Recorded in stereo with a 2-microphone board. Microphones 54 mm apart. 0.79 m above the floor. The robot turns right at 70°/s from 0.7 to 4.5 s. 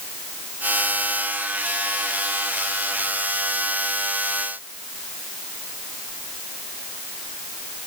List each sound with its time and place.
Only background noise.